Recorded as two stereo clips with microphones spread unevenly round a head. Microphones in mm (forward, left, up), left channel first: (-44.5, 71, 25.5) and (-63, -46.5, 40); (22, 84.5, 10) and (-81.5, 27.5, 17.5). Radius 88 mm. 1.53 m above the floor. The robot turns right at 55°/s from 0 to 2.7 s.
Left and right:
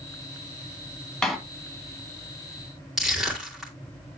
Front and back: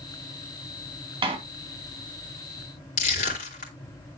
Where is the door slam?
165° left, 1.8 m; by 1.4 s 175° left, 1.8 m.